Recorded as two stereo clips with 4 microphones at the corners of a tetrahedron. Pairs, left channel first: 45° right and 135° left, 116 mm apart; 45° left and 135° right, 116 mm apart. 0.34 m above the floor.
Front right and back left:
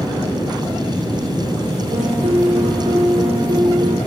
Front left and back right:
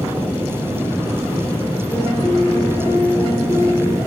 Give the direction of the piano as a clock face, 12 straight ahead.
8 o'clock.